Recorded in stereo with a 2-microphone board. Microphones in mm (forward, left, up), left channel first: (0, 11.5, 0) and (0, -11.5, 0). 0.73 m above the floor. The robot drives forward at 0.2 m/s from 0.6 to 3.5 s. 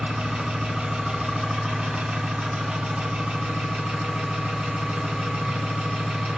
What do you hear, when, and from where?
0.0 s an engine running: 85° right, 1.7 m; by 6.4 s 65° right (ahead or behind), 1.9 m